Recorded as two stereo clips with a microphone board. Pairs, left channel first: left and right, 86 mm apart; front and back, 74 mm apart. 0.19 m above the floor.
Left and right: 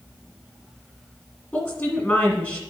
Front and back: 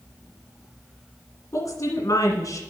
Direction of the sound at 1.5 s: 25° left.